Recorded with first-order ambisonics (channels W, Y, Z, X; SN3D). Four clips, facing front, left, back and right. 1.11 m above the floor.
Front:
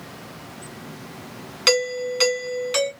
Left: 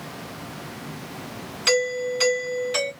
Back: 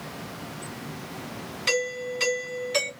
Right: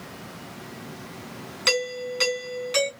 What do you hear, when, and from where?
1.7 s a doorbell: 10° right, 2.5 m